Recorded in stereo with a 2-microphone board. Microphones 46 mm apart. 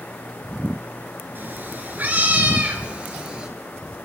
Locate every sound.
1.4 s a cat meowing: 45° right (ahead or behind), 2 m; by 3.5 s 20° right (ahead or behind), 2.5 m